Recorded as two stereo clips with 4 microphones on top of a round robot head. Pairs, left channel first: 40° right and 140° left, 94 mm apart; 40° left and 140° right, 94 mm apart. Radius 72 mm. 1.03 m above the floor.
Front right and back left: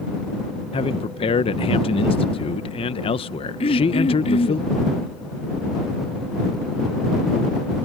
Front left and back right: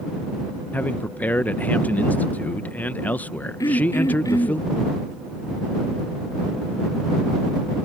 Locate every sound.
0.7 s a man speaking: 30° right
3.6 s throat clearing: 15° right